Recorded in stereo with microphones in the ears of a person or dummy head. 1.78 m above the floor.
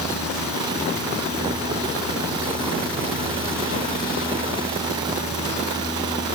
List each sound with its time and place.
Only background noise.